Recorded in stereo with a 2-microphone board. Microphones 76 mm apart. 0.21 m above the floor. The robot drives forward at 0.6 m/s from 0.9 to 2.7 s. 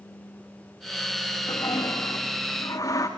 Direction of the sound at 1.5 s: 60° left (ahead or behind).